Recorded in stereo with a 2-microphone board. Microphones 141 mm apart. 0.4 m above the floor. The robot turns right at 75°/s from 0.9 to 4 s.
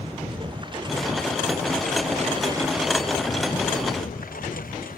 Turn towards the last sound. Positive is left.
turn(degrees=80)